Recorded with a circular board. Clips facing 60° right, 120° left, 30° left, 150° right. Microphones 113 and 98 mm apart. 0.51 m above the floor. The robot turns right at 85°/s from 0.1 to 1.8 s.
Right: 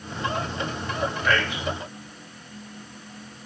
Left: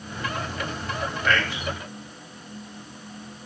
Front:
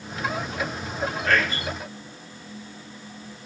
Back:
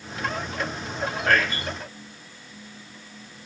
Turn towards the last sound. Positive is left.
turn(degrees=-100)